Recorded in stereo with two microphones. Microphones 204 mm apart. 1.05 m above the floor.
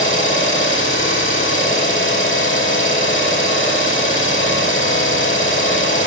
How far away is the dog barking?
I don't hear a dog barking.